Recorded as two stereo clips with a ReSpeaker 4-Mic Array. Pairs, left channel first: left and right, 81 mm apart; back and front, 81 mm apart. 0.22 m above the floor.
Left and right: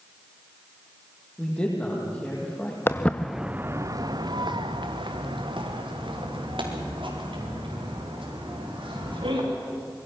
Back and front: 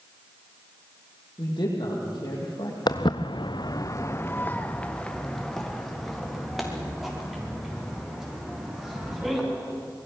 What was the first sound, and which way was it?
A man speaking, 165° left.